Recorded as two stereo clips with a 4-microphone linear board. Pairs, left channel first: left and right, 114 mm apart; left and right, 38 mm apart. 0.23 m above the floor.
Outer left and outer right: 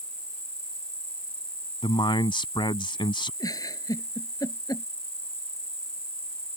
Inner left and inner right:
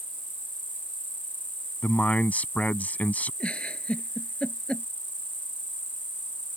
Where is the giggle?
30° left (ahead or behind).